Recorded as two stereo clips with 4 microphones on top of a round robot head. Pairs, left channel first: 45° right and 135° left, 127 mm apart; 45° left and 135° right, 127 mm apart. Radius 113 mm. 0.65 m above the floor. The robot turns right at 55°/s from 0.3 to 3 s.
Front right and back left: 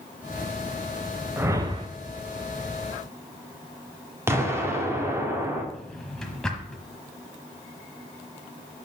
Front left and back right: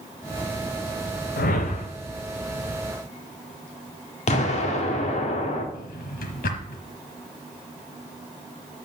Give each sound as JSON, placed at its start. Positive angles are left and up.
{"t": 1.4, "sound": "a whoosh", "azimuth_deg": 60, "distance_m": 0.9}
{"t": 4.3, "sound": "an explosion", "azimuth_deg": 65, "distance_m": 1.9}
{"t": 5.7, "sound": "a drawer", "azimuth_deg": 40, "distance_m": 1.1}